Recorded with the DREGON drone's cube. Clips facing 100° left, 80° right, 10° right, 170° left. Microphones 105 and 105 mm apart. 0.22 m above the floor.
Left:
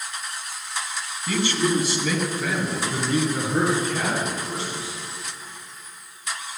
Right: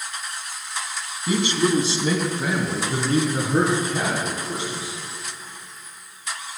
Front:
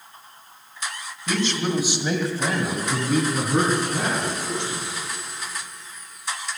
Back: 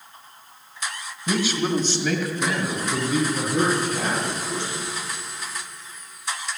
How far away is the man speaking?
About 1.8 m.